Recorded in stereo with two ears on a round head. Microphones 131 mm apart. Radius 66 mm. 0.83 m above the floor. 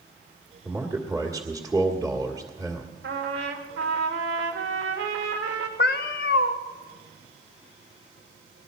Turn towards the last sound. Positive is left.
turn(degrees=70)  # may be behind; listen again after turning